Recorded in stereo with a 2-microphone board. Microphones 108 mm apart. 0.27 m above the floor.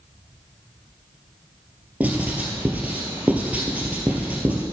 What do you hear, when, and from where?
2.0 s writing: 15° right (ahead or behind), 1.5 m